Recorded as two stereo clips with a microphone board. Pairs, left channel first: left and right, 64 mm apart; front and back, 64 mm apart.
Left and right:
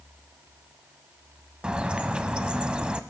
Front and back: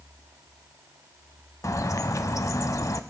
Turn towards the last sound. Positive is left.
turn(degrees=-15)